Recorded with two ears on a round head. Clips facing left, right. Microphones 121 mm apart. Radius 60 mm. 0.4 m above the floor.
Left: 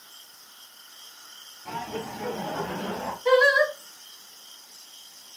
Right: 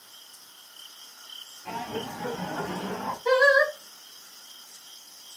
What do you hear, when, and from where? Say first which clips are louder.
1.6 s laughter: even; 10° right (ahead or behind), 0.9 m; by 3.1 s 60° left (ahead or behind), 1.5 m
3.2 s singing: left 1 dB; 35° left (ahead or behind), 1.7 m